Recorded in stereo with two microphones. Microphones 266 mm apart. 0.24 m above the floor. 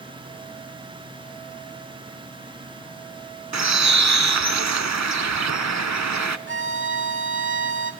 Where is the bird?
85° right, 0.5 m.